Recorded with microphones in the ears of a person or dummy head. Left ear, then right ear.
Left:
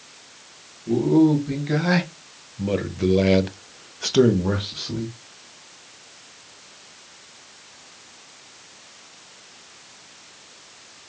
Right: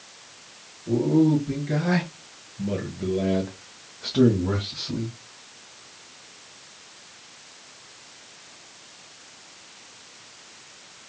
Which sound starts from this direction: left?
A man speaking, at 0.9 s.